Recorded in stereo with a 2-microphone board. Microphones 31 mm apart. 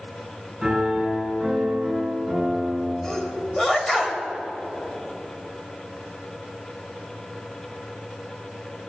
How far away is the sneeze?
About 1.3 m.